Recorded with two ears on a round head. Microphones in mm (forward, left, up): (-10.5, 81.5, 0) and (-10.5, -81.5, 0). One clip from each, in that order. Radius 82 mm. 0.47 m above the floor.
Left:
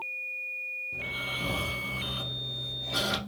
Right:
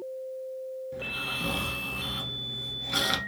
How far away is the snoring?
About 1.3 m.